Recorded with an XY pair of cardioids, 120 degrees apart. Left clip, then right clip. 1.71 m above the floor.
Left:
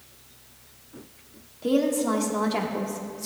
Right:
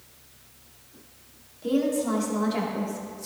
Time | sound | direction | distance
1.6 | a woman speaking | 25° left | 1.3 m